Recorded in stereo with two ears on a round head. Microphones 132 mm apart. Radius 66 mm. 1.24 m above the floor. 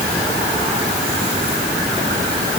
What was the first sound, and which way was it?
Only background noise.